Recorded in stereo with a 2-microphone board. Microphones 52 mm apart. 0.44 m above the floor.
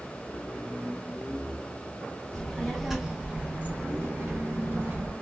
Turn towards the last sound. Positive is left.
turn(degrees=-50)  # may be behind; listen again after turning